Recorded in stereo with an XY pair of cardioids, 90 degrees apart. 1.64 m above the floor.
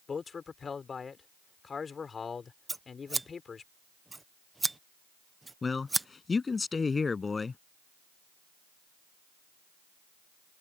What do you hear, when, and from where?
0.1 s a man speaking: 45° left
2.7 s scissors: 20° right
5.6 s a man speaking: 35° left